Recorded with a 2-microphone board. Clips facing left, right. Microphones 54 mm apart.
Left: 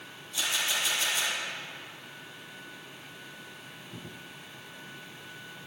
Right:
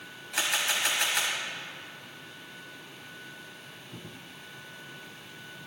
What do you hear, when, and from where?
0.3 s a camera shutter: 65° right (ahead or behind), 3.5 m